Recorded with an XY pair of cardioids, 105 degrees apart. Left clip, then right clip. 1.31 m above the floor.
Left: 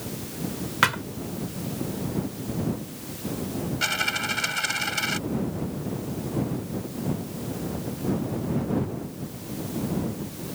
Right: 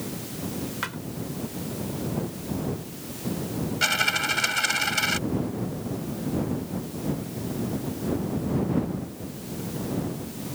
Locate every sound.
0.8 s a thud: 70° left
3.8 s a dropped coin: 15° right